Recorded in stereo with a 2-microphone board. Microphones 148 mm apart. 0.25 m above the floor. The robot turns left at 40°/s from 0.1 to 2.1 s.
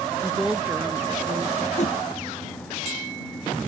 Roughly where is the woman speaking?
Ahead.